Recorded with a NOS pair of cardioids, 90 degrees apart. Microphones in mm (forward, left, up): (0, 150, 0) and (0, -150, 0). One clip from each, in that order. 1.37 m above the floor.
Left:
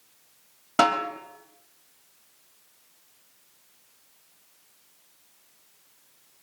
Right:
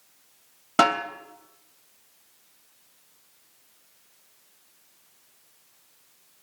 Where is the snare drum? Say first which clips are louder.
Right 1 dB; 10° right, 3.5 m.